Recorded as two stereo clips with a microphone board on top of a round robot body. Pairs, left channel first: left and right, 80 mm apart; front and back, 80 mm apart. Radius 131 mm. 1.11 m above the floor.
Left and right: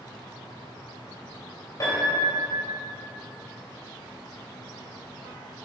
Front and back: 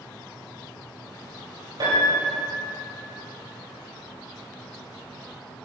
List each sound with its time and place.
1.8 s a piano: 145° left, 2.5 m